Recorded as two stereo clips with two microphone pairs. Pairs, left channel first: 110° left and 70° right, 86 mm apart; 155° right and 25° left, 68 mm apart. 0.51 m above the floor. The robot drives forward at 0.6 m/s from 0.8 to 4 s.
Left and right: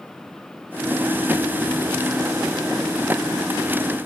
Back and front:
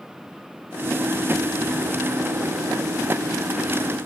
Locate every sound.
Only background noise.